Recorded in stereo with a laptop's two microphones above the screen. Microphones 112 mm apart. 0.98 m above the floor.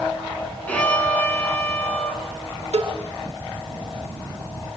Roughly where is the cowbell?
Right.